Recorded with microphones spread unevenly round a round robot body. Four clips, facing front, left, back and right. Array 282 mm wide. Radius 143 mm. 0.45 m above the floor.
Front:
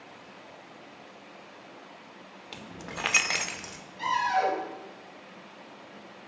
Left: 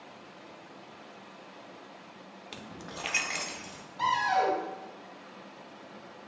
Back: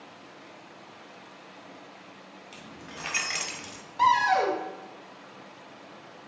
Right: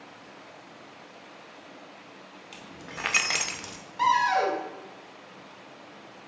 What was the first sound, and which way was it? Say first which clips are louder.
Keys jangling: right 1 dB, front 5 dB; 30° left.